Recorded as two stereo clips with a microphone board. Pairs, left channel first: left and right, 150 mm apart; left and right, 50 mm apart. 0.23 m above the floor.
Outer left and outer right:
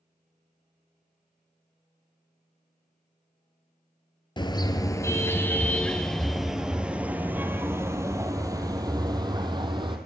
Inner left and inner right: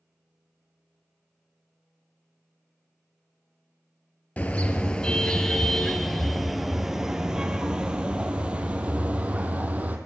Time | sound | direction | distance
4.4 | a car horn | 30° left (ahead or behind) | 2 m